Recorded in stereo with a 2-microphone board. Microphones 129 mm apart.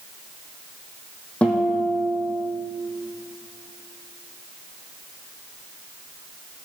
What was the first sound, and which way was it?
A guitar, 10° left (ahead or behind).